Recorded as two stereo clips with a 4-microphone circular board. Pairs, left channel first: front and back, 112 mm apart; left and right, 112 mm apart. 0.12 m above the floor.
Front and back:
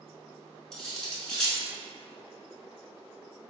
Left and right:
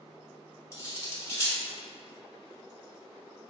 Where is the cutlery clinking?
75° left, 0.7 m.